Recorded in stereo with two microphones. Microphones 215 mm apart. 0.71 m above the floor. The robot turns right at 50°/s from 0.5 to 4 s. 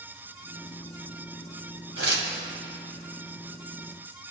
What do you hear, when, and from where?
2.0 s tearing paper: 85° right, 2.0 m; by 2.3 s 65° right (ahead or behind), 2.0 m